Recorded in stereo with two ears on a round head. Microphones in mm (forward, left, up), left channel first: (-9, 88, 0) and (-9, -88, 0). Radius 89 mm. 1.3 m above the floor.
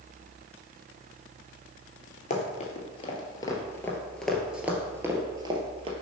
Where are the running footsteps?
40° left (ahead or behind), 1.6 m; by 5.9 s 30° right (ahead or behind), 1.6 m.